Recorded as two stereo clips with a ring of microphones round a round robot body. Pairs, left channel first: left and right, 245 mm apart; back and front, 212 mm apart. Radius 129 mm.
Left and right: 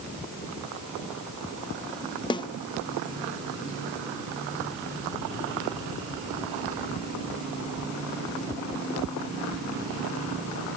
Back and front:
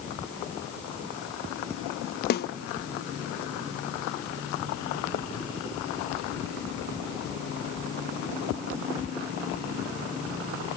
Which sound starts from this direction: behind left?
A snare drum, at 2.3 s.